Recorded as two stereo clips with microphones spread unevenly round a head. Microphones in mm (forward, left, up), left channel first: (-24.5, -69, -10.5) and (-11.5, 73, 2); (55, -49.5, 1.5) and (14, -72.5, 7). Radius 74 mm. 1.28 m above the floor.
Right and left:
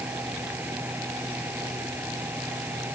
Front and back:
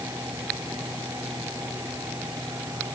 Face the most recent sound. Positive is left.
turn(degrees=165)